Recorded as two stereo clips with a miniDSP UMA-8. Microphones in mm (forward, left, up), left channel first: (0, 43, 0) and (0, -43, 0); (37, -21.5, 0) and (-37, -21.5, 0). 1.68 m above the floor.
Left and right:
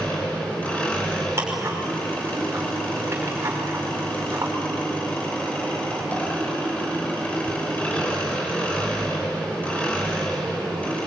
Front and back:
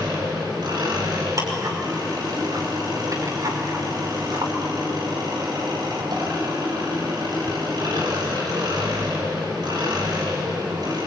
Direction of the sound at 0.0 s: 165° left.